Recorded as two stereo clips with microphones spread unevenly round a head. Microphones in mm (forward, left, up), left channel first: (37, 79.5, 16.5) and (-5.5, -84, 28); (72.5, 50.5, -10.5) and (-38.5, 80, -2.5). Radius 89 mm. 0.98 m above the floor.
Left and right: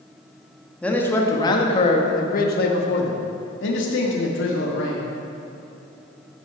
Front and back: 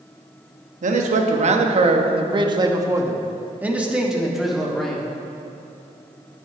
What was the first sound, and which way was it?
A man speaking, 160° left.